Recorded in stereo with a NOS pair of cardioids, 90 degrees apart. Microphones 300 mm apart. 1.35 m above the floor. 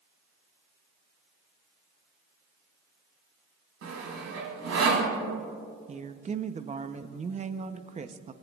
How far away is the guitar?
No guitar in this recording.